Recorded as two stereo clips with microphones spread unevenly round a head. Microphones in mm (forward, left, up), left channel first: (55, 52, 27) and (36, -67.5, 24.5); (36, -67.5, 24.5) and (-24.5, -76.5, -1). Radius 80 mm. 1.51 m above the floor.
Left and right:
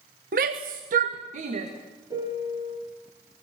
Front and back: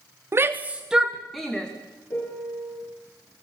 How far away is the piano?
About 6.5 m.